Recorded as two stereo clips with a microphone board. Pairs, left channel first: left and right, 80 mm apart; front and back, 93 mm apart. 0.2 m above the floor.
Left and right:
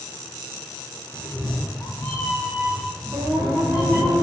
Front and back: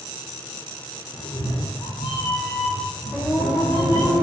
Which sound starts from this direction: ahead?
A cat meowing, at 1.1 s.